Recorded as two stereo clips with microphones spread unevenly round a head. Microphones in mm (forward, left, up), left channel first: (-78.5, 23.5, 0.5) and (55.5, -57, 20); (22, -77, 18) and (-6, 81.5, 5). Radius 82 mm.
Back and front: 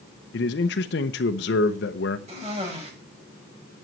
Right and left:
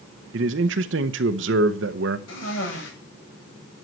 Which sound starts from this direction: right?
A cough, at 2.3 s.